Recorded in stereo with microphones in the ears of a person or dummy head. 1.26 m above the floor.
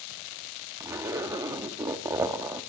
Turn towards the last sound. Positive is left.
turn(degrees=-20)  # may be behind; listen again after turning